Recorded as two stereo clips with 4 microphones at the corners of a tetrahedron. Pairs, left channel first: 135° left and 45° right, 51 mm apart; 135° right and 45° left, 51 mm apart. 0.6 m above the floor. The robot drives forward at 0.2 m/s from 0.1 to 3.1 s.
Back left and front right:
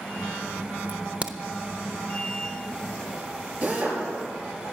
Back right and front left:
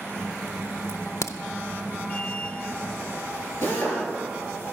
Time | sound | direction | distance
0.9 | a crack | 105° right | 0.6 m
3.6 | a drill | 100° right | 6 m